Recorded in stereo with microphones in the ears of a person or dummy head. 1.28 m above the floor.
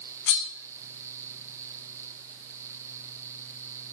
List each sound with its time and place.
0.3 s cutlery clinking: 60° left (ahead or behind), 0.9 m